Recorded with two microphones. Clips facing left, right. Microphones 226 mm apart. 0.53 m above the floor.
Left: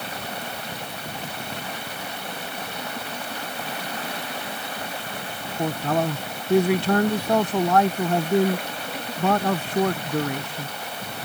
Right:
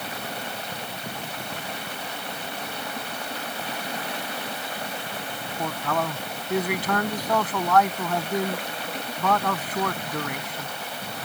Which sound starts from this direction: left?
A man speaking, at 5.6 s.